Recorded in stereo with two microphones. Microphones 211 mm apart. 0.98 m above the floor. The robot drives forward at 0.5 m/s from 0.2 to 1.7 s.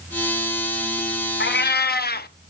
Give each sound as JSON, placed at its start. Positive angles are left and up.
{"t": 1.4, "sound": "a cat meowing", "side_deg": 60, "distance_m": 0.5}